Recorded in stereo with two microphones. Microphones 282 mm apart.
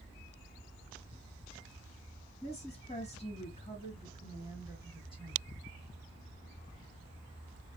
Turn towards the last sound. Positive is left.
turn(degrees=15)  # may be behind; listen again after turning